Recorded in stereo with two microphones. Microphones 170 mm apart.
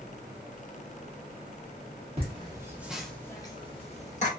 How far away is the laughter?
About 1.0 m.